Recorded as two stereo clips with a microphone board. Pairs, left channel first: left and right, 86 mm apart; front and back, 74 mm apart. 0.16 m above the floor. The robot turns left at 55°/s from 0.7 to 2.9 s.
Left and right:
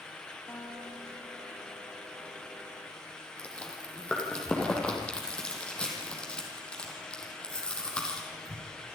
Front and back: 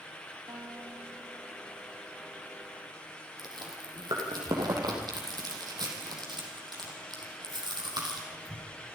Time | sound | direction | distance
0.5 | a guitar | 155° left | 6 m
3.4 | chewing | 170° left | 6.5 m